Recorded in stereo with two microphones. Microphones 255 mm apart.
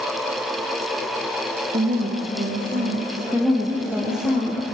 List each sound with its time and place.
1.7 s a woman speaking: 40° right (ahead or behind), 2 m; by 4.3 s 75° right (ahead or behind), 4.5 m
3.3 s a woman speaking: centre (ahead or behind), 2.5 m